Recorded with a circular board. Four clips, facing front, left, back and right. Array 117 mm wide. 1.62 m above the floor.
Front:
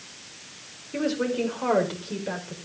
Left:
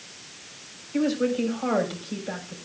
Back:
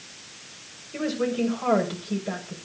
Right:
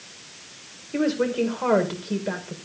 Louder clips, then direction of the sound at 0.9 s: Right 1 dB, even; 70° right.